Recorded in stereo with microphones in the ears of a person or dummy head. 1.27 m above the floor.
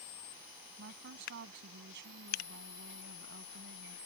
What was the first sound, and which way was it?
A woman speaking, 55° right (ahead or behind).